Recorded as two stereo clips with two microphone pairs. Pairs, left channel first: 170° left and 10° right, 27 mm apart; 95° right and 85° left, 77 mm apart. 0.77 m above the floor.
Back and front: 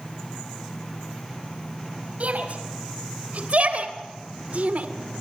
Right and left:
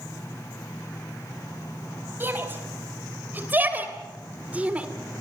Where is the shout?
20° left, 4 m; by 4.9 s 15° left, 1.9 m.